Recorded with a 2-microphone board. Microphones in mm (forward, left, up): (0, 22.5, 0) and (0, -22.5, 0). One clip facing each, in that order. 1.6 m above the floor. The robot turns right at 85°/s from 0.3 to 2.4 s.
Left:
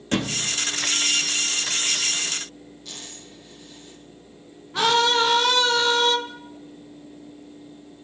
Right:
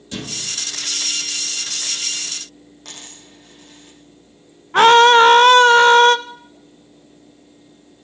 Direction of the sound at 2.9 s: 65° right (ahead or behind).